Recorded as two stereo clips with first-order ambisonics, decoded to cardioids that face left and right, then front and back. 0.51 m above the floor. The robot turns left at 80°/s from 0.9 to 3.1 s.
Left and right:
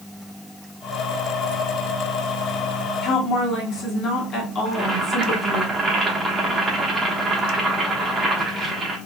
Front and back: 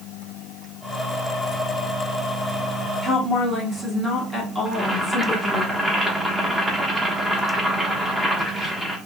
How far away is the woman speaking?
About 1.2 m.